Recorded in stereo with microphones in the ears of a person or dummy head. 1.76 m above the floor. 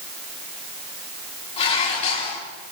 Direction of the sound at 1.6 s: 40° left (ahead or behind).